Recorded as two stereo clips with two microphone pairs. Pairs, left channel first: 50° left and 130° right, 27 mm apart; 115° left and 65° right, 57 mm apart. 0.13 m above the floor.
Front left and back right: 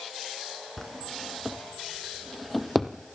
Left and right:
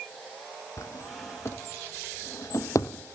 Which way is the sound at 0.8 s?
135° left.